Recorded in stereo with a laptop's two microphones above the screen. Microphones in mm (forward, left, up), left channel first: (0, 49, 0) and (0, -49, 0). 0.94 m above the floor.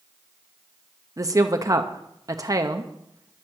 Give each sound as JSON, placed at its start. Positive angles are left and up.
{"t": 1.2, "sound": "a woman speaking", "side_deg": -35, "distance_m": 0.7}